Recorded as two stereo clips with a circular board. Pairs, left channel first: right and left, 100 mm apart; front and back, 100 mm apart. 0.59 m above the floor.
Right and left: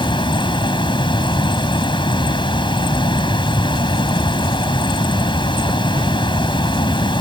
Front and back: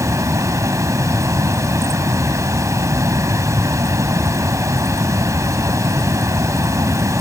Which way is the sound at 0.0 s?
125° right.